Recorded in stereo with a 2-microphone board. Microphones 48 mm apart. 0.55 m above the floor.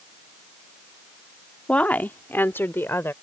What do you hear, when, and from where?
1.7 s a woman speaking: 25° left (ahead or behind); by 3.1 s 50° left (ahead or behind)